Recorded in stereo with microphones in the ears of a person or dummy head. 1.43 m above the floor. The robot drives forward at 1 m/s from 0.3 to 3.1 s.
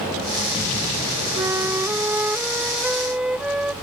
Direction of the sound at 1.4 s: 15° right (ahead or behind).